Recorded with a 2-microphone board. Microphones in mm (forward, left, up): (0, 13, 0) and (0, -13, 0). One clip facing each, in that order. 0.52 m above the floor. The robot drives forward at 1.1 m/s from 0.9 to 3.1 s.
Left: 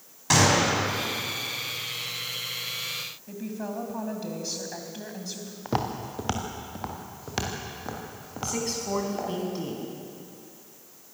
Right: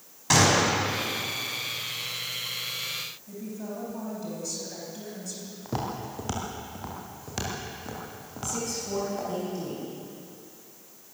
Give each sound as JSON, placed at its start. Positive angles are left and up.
{"t": 0.3, "sound": "a gunshot", "side_deg": 0, "distance_m": 4.5}
{"t": 3.3, "sound": "a woman speaking", "side_deg": 40, "distance_m": 4.0}
{"t": 5.7, "sound": "footsteps", "side_deg": 35, "distance_m": 3.5}
{"t": 8.4, "sound": "a woman speaking", "side_deg": 45, "distance_m": 5.0}